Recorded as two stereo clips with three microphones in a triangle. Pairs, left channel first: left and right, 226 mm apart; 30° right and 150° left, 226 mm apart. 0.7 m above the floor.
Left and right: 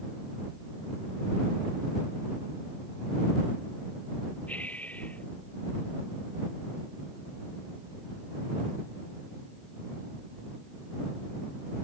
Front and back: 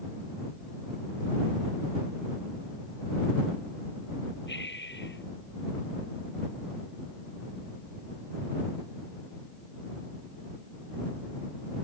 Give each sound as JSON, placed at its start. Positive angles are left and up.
{"t": 4.5, "sound": "breathing", "azimuth_deg": 5}